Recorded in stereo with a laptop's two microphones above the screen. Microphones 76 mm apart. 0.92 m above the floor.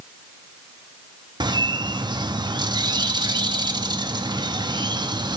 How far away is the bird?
About 0.7 m.